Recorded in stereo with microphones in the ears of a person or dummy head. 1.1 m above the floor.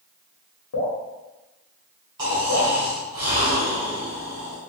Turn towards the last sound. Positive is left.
turn(degrees=-20)  # may be behind; listen again after turning